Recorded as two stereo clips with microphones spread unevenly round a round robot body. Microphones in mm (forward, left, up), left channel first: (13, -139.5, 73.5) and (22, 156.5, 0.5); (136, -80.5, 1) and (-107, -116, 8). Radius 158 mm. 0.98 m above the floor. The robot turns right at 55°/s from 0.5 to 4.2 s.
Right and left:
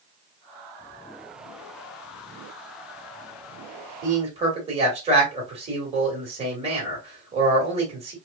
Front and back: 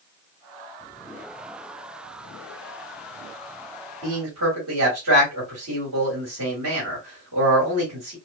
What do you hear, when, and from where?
4.0 s a man speaking: 140° left, 1.8 m; by 8.2 s 150° left, 1.8 m